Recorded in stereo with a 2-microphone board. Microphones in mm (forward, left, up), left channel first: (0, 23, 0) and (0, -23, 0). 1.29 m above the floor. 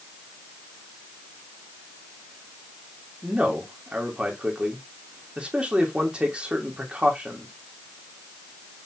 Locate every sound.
3.2 s a man speaking: 20° right (ahead or behind), 3 m